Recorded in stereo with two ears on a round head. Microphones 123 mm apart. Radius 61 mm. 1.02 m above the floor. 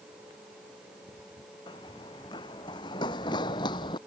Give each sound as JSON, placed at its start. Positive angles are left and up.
{"t": 1.7, "sound": "running footsteps", "side_deg": 35}